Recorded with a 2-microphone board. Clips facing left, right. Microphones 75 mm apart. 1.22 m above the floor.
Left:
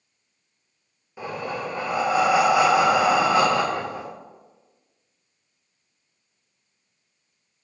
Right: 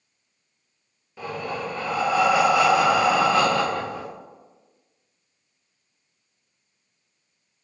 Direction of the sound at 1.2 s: 15° left (ahead or behind).